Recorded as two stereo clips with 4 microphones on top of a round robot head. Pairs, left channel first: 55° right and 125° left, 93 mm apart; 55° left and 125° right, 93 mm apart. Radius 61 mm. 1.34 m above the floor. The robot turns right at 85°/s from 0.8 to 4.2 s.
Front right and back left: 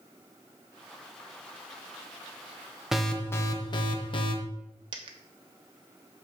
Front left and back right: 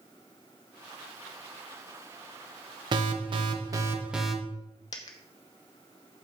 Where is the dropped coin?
95° left, 0.8 m.